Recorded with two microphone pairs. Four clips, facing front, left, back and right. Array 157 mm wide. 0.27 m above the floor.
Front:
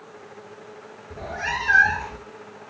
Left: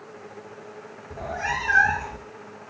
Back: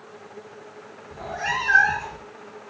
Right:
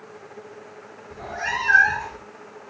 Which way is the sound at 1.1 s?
25° left.